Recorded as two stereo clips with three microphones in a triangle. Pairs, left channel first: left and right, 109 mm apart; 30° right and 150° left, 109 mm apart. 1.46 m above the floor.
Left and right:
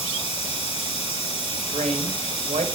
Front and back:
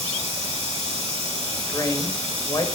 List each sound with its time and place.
0.0 s running water: 125° left, 3 m
1.7 s a woman speaking: 95° right, 0.9 m